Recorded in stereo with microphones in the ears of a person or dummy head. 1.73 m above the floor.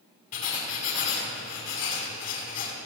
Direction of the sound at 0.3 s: 45° left (ahead or behind).